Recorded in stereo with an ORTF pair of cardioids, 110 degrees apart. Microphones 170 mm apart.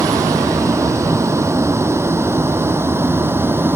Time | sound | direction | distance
0.0 | a vehicle | 20° right | ?